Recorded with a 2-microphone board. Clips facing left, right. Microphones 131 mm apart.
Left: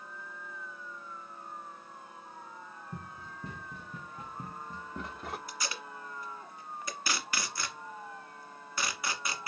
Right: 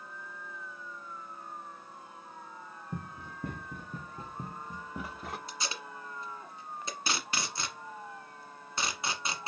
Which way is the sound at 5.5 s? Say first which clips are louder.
Even; 25° right (ahead or behind).